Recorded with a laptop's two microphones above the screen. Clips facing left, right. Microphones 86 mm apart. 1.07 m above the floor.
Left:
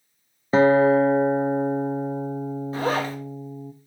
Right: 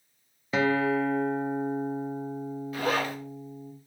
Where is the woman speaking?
No woman speaking in this recording.